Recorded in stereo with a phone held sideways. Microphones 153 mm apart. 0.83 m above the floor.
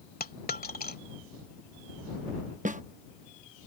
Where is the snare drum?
55° right (ahead or behind).